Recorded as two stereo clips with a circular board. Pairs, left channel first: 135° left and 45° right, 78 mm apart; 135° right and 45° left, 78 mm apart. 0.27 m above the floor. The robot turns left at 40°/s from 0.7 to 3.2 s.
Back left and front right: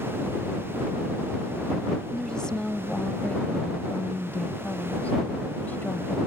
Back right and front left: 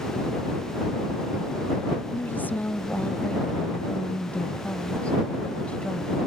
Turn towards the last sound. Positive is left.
turn(degrees=170)